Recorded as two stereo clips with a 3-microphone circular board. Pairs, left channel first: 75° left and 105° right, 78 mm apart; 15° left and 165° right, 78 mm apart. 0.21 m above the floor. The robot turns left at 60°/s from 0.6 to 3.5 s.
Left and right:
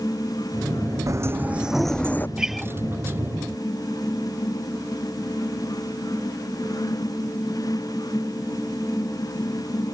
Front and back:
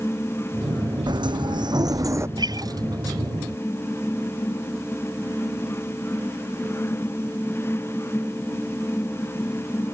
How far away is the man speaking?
No man speaking in this recording.